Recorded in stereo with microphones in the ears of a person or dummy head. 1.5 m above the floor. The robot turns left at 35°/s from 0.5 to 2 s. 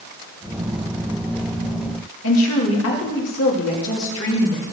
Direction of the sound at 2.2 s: 70° left (ahead or behind).